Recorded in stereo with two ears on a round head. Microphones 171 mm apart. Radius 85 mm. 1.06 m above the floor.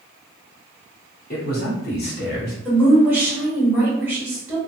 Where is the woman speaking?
10° right (ahead or behind), 1.3 m.